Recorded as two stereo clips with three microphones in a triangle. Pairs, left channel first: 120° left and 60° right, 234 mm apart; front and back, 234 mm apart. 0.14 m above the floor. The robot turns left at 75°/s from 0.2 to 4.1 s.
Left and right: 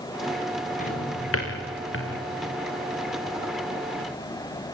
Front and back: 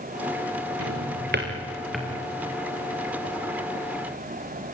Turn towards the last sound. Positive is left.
turn(degrees=-70)